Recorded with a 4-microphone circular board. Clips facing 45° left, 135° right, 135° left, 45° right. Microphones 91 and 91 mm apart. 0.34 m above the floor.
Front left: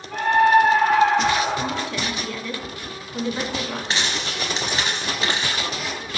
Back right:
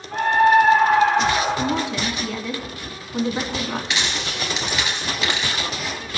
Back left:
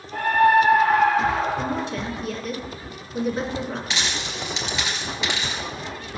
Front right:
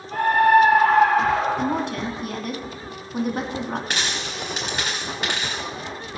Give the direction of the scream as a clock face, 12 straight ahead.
3 o'clock.